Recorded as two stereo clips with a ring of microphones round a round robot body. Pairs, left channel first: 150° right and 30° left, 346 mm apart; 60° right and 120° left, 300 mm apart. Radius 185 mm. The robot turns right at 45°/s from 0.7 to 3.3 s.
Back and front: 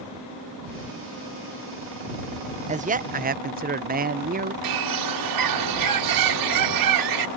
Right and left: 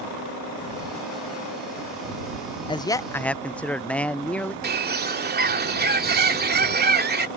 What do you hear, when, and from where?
2.7 s a man speaking: 5° right; by 4.5 s 20° left
4.6 s a bird: 60° left